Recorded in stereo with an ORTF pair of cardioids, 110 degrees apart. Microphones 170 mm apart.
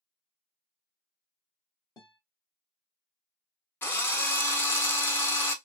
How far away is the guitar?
About 0.9 m.